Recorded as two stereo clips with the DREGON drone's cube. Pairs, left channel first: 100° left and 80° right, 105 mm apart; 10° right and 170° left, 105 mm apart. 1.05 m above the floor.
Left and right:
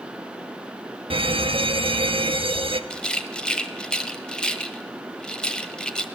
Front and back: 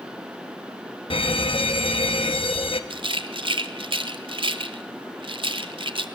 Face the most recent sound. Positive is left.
turn(degrees=180)